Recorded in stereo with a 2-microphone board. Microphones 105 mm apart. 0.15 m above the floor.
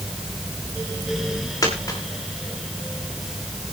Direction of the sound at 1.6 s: 30° left (ahead or behind).